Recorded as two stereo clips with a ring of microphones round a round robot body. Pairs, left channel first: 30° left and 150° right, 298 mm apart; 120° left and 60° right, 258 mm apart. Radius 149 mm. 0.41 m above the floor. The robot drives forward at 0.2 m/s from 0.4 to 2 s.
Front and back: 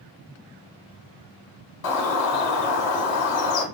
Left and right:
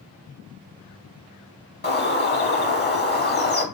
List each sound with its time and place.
1.8 s a bird: 60° left, 0.8 m; by 3.6 s 65° left, 0.8 m